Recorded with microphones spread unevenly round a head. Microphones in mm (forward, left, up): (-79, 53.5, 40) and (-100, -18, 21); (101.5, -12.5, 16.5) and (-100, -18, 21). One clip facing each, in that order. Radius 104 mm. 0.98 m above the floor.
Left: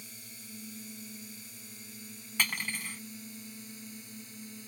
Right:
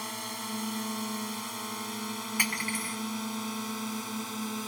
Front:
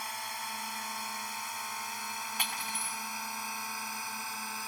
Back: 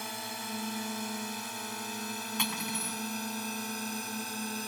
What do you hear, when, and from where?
0.0 s a drone: 120° right
2.4 s cutlery clinking: 170° left